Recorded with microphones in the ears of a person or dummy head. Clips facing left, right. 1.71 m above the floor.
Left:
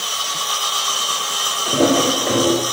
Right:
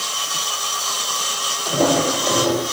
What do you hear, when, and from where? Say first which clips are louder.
1.6 s footsteps: left 2 dB; 25° left (ahead or behind), 4 m